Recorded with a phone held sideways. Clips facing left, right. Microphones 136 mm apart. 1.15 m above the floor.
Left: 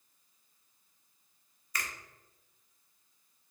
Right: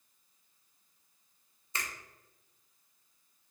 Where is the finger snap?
25° right (ahead or behind), 0.8 m.